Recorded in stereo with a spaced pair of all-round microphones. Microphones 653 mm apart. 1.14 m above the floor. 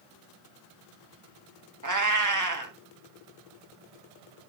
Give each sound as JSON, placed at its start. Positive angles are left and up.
{"t": 1.8, "sound": "a cat meowing", "side_deg": -30, "distance_m": 1.1}